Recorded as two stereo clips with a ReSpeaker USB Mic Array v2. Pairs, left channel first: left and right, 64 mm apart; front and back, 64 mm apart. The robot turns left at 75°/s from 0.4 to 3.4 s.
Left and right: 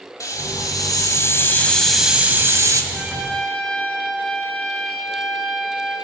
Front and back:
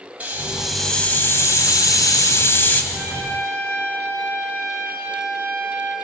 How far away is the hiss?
About 2 m.